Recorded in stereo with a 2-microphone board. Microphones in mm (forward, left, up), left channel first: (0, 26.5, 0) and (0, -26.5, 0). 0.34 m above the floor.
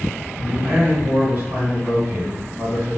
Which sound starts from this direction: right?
A man speaking, at 0.4 s.